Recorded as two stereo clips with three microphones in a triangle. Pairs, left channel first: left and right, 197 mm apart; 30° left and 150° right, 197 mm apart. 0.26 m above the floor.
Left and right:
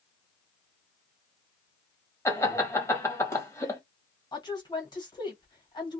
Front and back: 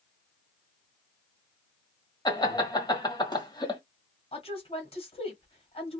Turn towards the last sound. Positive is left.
turn(degrees=45)